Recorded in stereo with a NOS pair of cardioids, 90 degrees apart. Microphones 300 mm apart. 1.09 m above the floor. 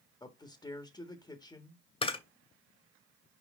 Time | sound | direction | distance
0.2 | a man speaking | 15° left | 1.6 m
2.0 | a camera shutter | 20° left | 1.7 m